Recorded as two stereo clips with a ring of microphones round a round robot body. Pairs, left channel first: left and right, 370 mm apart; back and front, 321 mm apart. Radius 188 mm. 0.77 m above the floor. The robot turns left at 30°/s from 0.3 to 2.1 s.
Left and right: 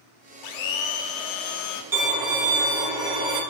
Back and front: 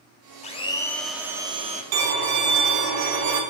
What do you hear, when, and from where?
0.4 s a blender: 110° left, 0.6 m; by 1.8 s 70° left, 0.6 m
1.9 s a violin: 5° right, 0.7 m; by 3.4 s 10° right, 0.7 m